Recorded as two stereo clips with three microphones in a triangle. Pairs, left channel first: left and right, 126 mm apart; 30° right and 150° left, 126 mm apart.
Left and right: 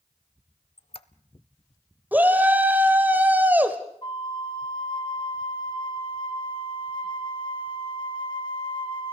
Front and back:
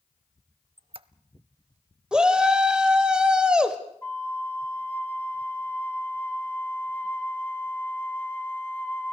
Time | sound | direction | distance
0.8 | a squeak | 120° left | 0.6 m
2.1 | a shout | 140° right | 1.6 m
4.0 | a flute | 45° left | 1.7 m